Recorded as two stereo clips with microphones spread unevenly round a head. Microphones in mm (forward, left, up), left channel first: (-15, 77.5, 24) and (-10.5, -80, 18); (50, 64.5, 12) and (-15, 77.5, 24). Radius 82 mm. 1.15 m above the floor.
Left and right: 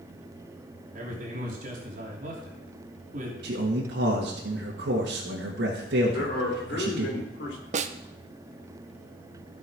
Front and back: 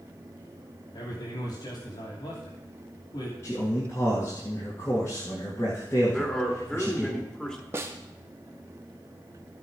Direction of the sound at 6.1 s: 65° left.